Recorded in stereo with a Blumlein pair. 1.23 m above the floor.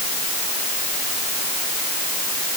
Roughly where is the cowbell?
I don't hear a cowbell.